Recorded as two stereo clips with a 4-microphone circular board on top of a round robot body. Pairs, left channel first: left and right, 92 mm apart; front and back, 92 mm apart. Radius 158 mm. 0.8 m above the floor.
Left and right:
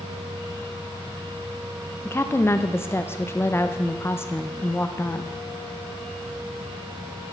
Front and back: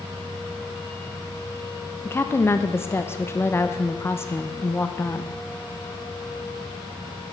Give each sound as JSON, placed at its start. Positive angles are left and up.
{"t": 2.0, "sound": "a woman speaking", "azimuth_deg": 45, "distance_m": 0.9}